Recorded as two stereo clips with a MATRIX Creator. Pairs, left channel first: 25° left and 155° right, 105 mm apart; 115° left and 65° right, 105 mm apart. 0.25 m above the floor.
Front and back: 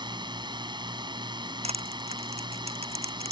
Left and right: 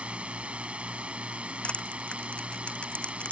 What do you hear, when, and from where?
0.0 s a drone: 140° right
1.6 s crushing: 170° right